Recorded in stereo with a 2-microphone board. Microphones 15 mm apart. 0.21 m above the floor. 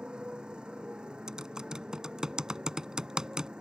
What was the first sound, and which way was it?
A motorcycle, 85° right.